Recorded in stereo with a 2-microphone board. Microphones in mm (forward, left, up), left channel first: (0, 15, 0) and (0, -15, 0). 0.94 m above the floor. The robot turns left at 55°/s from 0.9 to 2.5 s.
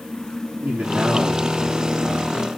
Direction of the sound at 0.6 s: 100° right.